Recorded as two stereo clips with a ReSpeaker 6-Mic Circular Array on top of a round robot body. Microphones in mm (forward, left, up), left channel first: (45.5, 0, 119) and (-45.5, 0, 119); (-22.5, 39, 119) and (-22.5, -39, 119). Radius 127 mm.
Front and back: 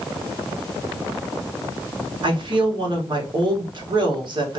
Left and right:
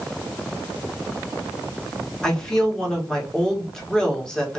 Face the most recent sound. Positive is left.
turn(degrees=170)